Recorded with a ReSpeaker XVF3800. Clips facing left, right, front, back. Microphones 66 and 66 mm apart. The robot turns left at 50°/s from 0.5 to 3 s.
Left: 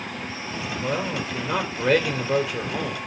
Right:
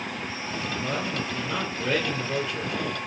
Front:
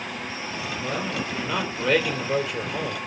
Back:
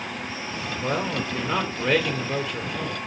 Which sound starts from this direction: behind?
A man speaking, at 0.8 s.